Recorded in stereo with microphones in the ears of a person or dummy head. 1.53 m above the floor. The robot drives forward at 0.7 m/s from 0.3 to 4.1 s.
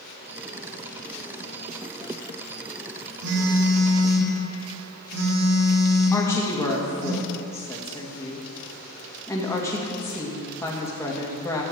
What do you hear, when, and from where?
3.2 s a phone buzzing: 65° right (ahead or behind), 1.9 m; by 7.1 s 55° right (ahead or behind), 2 m
6.1 s a woman speaking: 15° left (ahead or behind), 2 m